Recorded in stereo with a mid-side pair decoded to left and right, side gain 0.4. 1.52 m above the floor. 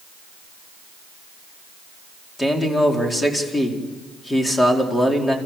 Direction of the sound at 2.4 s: 15° left.